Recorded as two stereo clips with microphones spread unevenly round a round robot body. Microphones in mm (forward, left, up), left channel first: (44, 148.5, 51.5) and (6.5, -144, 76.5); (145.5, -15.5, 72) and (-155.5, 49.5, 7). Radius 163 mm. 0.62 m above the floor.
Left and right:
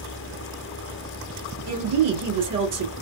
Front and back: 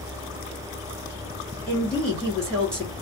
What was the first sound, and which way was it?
A woman speaking, 110° right.